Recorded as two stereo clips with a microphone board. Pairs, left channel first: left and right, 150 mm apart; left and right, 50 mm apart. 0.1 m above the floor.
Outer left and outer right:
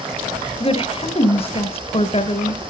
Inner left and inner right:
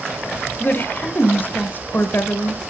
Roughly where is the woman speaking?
Left.